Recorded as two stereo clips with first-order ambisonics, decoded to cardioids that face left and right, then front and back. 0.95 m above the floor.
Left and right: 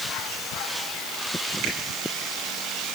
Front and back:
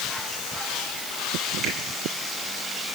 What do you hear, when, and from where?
1.6 s a finger snap: 120° right, 3.5 m